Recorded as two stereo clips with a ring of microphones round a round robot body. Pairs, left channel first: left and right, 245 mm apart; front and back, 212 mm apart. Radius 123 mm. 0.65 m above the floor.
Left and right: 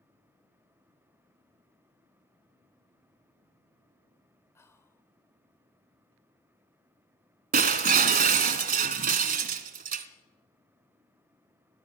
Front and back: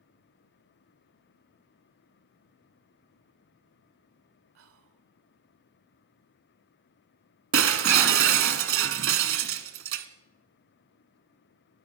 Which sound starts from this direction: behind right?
Breaking glass, at 7.5 s.